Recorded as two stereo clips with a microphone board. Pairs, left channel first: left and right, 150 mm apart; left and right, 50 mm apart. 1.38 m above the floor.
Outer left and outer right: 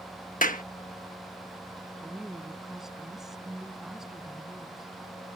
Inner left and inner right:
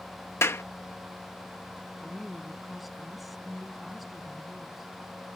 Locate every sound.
0.4 s a clap: 65° left (ahead or behind)
2.0 s a woman speaking: centre (ahead or behind)